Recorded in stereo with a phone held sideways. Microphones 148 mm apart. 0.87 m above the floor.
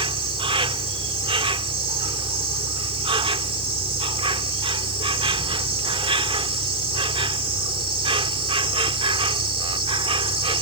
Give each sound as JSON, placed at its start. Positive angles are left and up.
{"t": 0.0, "sound": "an insect", "side_deg": -40}